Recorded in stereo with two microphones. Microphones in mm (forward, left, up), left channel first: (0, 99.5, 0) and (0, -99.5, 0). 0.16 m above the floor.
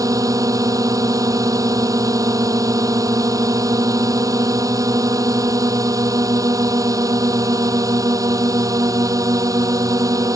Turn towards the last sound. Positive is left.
turn(degrees=-15)  # may be behind; listen again after turning